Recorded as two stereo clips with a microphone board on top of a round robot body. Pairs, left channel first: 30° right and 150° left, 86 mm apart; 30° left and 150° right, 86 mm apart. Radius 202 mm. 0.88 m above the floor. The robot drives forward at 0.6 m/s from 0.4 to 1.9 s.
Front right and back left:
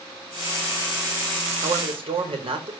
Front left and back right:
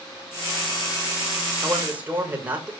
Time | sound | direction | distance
1.6 | a man speaking | 140° left | 5 m